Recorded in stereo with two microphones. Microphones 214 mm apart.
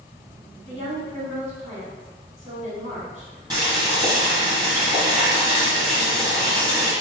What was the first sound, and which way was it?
A woman speaking, 35° right (ahead or behind).